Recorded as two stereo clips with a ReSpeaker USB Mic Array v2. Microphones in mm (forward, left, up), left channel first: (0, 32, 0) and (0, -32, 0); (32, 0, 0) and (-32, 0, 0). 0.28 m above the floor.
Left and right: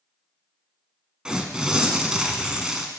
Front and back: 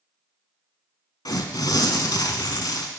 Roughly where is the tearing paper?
Ahead.